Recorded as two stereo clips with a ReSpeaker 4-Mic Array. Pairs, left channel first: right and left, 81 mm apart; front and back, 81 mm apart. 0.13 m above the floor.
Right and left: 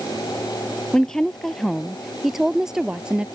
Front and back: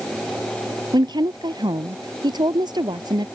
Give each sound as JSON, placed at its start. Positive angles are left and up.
{"t": 0.9, "sound": "a woman speaking", "azimuth_deg": -170}